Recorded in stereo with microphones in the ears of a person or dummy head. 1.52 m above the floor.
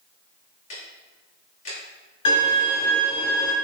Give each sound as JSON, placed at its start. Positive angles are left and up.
{"t": 0.7, "sound": "ticking", "side_deg": 45, "distance_m": 1.9}
{"t": 2.2, "sound": "a violin", "side_deg": 35, "distance_m": 3.0}